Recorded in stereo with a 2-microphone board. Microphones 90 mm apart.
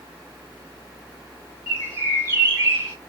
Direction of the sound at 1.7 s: 35° right (ahead or behind).